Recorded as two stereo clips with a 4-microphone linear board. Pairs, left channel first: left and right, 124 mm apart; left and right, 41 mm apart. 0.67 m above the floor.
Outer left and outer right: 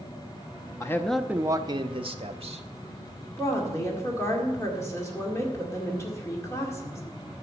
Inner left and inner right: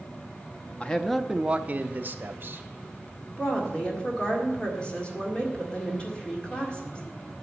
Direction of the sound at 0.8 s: 25° left (ahead or behind).